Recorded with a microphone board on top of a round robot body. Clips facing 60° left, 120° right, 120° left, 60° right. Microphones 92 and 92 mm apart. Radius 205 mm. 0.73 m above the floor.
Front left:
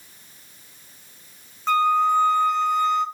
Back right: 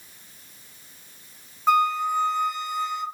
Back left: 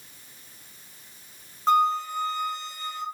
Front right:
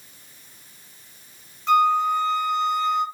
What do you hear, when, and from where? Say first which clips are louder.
1.7 s a flute: front left 2 dB, front right 4 dB; 165° left, 1.0 m